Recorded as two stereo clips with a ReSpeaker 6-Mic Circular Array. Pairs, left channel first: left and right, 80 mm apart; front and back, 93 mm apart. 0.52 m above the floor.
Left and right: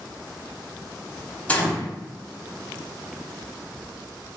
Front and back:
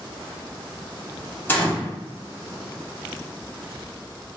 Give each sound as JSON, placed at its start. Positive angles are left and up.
{"t": 1.5, "sound": "a gunshot", "azimuth_deg": 40, "distance_m": 0.9}